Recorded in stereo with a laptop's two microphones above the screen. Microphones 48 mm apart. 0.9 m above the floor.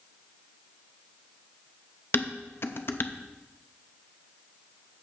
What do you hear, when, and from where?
2.1 s dishes clattering: 55° left (ahead or behind), 0.6 m